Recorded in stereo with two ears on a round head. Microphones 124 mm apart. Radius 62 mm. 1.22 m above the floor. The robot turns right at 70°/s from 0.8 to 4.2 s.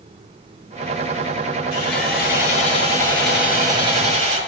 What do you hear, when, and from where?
1.7 s sawing: 65° left, 5.5 m; by 4.4 s 120° right, 5.5 m